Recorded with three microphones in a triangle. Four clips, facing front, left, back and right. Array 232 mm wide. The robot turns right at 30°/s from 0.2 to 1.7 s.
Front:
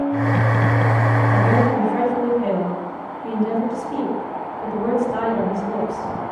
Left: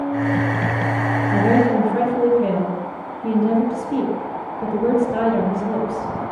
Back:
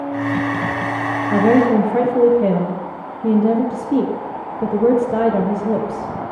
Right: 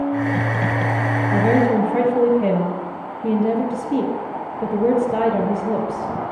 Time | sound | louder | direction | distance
1.3 | a woman speaking | even, back 7 dB | 175° right | 4 m